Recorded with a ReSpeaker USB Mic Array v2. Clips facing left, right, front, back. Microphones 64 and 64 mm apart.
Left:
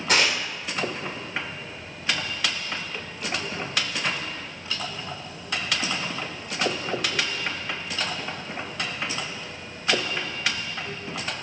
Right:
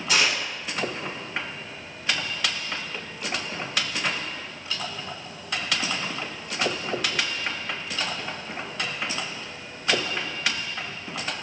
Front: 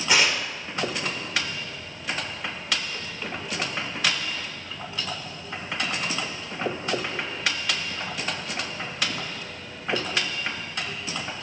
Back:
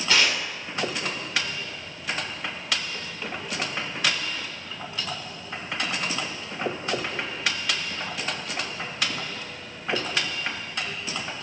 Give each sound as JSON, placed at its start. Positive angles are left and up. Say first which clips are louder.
{"t": 0.1, "sound": "tearing paper", "louder": "left 1 dB, front 1 dB", "azimuth_deg": 70, "distance_m": 2.0}